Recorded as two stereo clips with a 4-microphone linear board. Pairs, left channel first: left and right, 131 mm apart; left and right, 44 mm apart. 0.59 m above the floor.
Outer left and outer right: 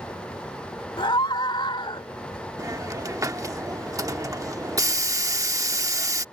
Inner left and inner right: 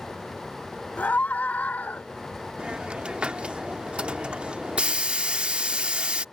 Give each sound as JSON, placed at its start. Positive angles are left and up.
{"t": 1.0, "sound": "a scream", "side_deg": 40}
{"t": 2.6, "sound": "a hiss", "side_deg": -25}